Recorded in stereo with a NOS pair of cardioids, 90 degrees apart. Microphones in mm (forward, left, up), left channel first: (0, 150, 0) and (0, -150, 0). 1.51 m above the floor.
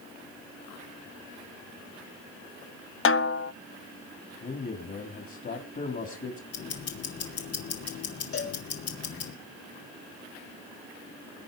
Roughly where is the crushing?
I don't hear crushing.